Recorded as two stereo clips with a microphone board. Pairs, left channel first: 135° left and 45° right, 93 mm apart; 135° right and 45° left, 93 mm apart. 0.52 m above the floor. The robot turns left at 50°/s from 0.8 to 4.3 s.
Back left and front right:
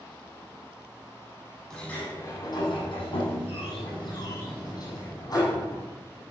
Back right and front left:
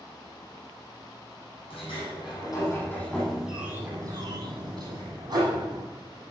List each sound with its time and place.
1.7 s a sliding door: 145° right, 8.5 m; by 5.8 s 85° left, 8.5 m